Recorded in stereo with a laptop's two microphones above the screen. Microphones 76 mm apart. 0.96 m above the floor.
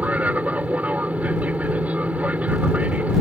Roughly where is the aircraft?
Centre.